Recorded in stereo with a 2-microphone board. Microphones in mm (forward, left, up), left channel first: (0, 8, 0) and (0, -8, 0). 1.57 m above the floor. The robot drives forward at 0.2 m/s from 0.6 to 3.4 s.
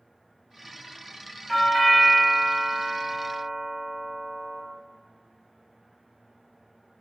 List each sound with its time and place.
1.5 s a doorbell: centre (ahead or behind), 0.9 m